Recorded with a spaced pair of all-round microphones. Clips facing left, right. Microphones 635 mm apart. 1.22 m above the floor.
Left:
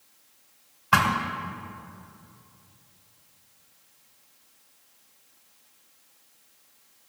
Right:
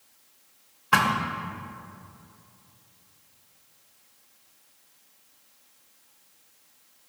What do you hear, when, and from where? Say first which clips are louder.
0.9 s a thud: even; 10° left (ahead or behind), 1.0 m